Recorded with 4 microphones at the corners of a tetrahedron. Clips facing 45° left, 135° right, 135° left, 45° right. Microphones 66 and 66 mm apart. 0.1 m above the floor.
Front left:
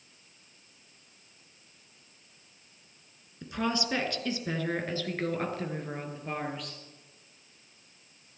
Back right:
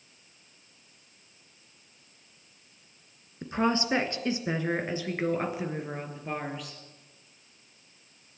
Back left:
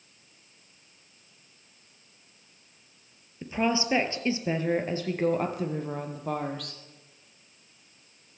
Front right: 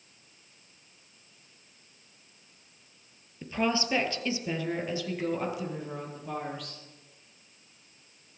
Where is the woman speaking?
160° right, 1.5 m; by 6.8 s 140° left, 2.5 m.